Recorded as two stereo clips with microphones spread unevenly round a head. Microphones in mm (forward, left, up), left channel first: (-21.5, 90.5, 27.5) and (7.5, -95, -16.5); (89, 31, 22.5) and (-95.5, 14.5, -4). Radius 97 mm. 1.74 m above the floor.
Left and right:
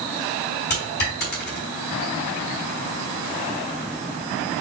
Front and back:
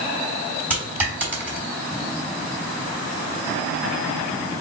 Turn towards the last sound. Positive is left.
turn(degrees=100)